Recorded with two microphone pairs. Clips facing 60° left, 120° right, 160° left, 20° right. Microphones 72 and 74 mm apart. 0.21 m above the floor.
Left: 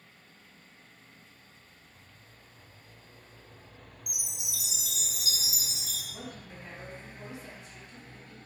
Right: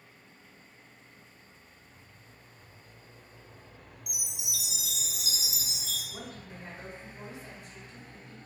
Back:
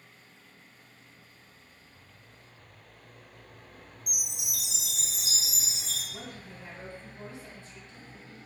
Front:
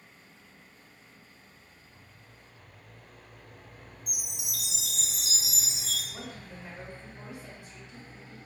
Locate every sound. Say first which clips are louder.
4.1 s a chime: right 2 dB, back 2 dB; 90° left, 1.4 m
6.1 s a woman speaking: even, front 1 dB; 70° right, 1.0 m